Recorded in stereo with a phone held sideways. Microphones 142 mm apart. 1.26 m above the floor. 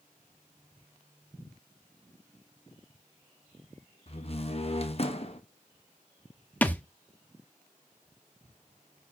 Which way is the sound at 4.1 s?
45° left (ahead or behind).